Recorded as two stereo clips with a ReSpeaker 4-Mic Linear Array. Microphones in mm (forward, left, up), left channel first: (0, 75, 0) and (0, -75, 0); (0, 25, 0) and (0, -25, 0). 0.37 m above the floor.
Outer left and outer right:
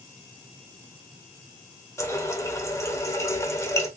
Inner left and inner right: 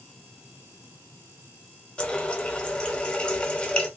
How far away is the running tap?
About 0.5 m.